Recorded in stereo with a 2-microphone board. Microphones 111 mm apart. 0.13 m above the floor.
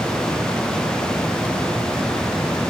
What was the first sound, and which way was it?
Only background noise.